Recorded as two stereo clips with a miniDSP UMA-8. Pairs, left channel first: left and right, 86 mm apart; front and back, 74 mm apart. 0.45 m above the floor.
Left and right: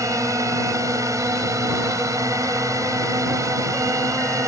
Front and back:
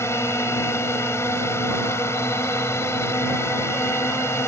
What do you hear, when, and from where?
0.0 s a drone: 45° right